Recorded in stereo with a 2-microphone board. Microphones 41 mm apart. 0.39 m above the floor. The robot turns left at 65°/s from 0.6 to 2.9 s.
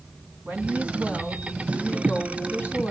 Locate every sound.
0.5 s a woman speaking: 135° right, 2.5 m; by 2.9 s 75° left, 2.5 m